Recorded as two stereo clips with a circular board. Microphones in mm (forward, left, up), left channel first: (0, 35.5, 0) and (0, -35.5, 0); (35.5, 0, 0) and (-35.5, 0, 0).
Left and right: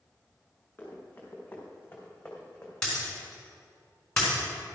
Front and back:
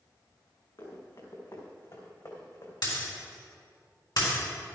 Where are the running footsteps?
25° left, 4.5 m; by 2.7 s 15° left, 3.5 m.